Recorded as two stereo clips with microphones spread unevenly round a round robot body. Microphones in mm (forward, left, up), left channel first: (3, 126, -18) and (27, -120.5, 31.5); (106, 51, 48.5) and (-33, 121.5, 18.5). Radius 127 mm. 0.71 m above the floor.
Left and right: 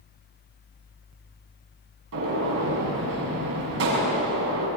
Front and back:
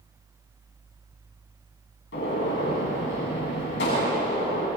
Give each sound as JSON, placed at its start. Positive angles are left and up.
{"t": 2.1, "sound": "a gunshot", "azimuth_deg": -50, "distance_m": 8.0}